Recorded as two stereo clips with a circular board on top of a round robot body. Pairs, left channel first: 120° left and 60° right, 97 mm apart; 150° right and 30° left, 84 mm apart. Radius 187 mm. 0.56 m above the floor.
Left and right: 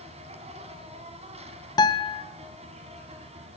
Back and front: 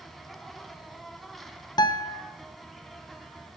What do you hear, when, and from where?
0.0 s an insect: 60° right, 1.5 m
1.8 s a guitar: 170° left, 0.8 m